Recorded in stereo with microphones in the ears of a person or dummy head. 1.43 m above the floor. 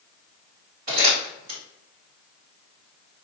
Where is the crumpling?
50° right (ahead or behind), 1.3 m.